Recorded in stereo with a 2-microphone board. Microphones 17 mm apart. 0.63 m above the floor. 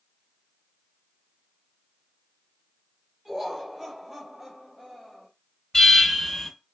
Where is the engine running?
No engine running in this recording.